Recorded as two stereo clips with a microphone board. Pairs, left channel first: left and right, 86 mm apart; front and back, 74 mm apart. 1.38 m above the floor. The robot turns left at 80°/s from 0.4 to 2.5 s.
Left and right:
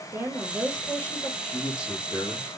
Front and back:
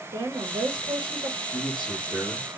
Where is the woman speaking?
150° right, 1.5 m; by 1.3 s 135° left, 1.5 m.